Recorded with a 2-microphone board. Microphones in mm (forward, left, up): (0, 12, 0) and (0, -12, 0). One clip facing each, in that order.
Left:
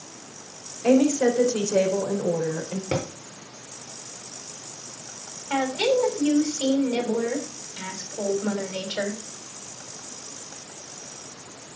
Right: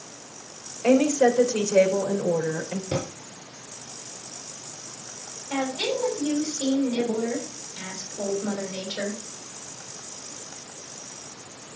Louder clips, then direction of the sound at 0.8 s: Even; 25° right (ahead or behind).